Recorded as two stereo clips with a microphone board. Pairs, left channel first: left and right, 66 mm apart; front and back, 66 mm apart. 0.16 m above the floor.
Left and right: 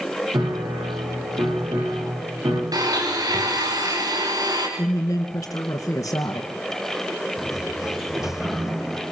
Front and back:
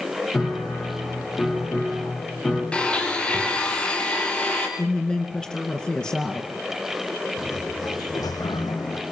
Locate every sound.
0.3 s a piano: 65° right, 10 m
2.7 s a blender: 75° right, 7 m
4.8 s a woman speaking: 70° left, 2.5 m
7.4 s a sliding door: 5° right, 5 m